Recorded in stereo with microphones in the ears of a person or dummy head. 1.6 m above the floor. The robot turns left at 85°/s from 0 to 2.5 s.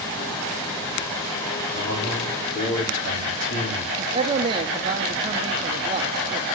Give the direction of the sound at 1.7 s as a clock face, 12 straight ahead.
7 o'clock.